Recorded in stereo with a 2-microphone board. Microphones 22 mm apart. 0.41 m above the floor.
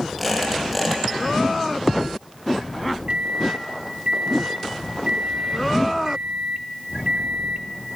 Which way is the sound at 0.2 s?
10° left (ahead or behind).